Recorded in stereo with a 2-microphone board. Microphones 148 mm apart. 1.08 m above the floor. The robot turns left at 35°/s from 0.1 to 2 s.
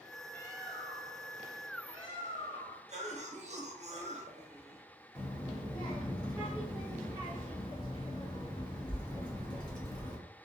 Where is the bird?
160° left, 1.4 m; by 2.8 s 105° left, 1.4 m.